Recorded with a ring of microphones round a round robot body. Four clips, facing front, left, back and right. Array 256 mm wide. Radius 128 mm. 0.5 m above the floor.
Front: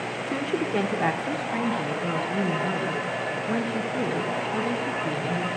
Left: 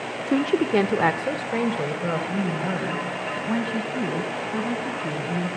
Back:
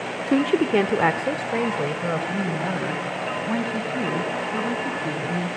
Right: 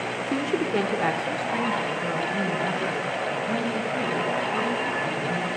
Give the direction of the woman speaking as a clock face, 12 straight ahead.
7 o'clock.